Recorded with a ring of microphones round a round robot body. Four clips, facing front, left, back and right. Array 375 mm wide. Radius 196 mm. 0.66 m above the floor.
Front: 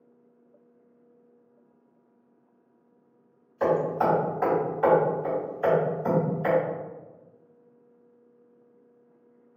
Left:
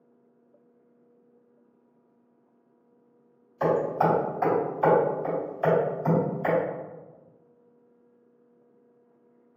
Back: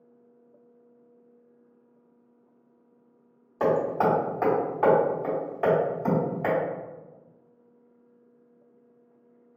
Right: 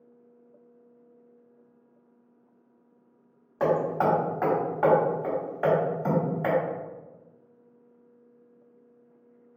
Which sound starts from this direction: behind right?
Hammering, at 3.6 s.